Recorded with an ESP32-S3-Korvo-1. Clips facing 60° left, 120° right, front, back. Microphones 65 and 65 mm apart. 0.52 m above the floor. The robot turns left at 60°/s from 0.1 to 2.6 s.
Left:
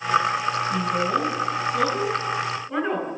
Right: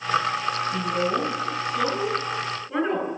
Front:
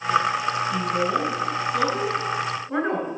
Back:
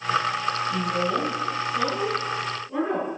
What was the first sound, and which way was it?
A woman speaking, 105° left.